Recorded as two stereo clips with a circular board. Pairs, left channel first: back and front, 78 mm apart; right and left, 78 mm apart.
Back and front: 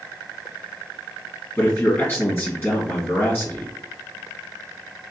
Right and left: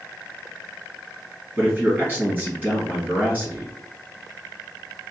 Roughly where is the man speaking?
Behind left.